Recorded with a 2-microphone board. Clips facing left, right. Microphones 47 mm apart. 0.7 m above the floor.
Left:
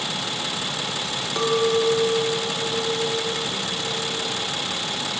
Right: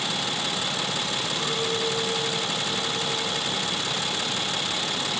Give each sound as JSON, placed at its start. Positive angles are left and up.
{"t": 1.4, "sound": "a clink", "side_deg": 75, "distance_m": 1.6}